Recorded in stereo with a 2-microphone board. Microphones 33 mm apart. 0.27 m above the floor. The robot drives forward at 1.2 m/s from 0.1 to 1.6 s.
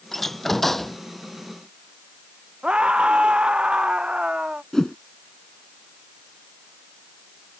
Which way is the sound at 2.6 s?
30° right (ahead or behind).